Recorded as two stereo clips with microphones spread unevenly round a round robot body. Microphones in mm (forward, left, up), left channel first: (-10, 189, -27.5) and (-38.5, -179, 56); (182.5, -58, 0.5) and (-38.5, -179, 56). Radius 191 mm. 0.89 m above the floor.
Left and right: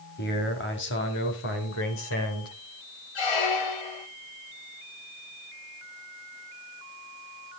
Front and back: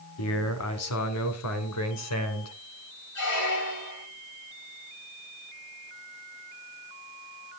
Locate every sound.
0.2 s a man speaking: 25° left, 2.5 m; by 2.5 s 30° left, 4.5 m
3.1 s a squeak: 65° left, 3 m